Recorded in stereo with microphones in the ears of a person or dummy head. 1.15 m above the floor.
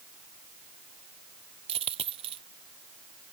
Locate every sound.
1.7 s a dropped coin: 30° right (ahead or behind)